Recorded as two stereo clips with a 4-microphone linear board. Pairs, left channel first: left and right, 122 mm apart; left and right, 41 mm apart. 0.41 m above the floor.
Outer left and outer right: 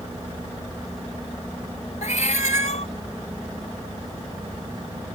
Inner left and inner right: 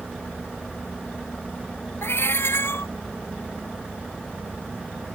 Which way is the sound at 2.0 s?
80° left.